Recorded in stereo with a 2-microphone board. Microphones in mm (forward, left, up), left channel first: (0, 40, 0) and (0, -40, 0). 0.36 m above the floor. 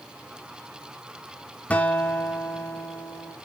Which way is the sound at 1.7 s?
20° left (ahead or behind).